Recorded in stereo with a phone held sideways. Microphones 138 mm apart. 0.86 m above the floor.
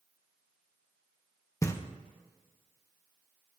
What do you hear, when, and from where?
1.6 s knocking: 20° left (ahead or behind), 0.7 m